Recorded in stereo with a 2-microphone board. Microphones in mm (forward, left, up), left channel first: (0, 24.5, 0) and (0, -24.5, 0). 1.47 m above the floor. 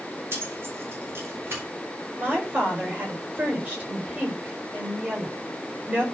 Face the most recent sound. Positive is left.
turn(degrees=-30)  # may be behind; listen again after turning